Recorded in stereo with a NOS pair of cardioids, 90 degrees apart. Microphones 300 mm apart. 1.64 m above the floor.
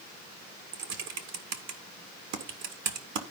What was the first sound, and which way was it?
Typing on a keyboard, 70° right.